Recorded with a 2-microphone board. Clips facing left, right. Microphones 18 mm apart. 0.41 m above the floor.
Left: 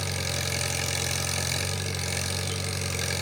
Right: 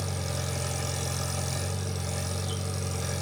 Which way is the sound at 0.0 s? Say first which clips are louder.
Left 4 dB; 75° left (ahead or behind).